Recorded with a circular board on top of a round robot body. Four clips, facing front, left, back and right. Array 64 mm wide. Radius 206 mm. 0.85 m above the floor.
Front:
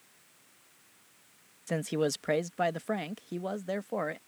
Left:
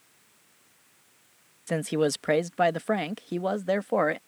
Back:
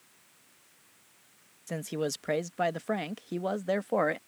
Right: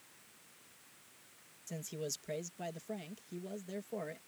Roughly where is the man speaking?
Left.